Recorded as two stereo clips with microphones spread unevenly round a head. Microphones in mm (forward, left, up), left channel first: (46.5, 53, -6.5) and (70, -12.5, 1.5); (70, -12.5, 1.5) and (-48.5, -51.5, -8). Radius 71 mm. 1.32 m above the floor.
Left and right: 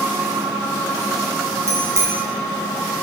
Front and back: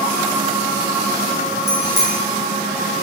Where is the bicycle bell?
25° right, 5 m.